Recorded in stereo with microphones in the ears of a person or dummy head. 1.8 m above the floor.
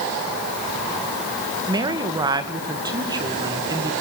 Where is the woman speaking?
20° right (ahead or behind), 2 m.